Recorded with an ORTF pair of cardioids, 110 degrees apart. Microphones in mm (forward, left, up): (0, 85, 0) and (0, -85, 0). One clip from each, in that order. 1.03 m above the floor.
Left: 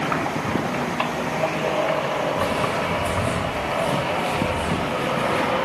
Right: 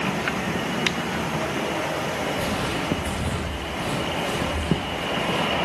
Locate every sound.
2.4 s footsteps: 30° left, 3.5 m